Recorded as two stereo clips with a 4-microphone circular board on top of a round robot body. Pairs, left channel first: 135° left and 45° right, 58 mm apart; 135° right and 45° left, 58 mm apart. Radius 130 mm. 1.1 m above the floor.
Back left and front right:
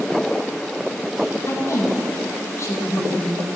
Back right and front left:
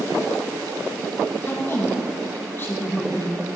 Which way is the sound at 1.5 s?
175° left.